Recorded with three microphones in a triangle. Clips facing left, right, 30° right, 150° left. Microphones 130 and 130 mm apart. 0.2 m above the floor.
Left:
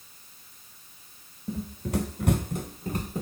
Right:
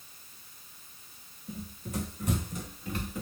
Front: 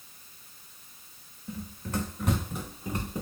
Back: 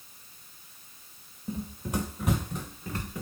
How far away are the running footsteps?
About 0.9 m.